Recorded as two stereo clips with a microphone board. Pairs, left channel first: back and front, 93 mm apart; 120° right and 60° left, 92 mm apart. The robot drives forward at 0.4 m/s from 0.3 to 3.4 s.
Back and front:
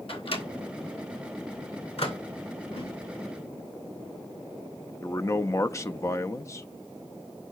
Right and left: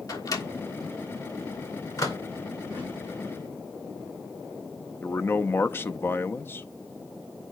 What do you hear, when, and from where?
0.1 s a microwave: 170° right, 1.5 m; by 2.2 s 175° right, 2 m
2.6 s a whoosh: 170° left, 6 m
5.0 s a man speaking: 160° right, 0.5 m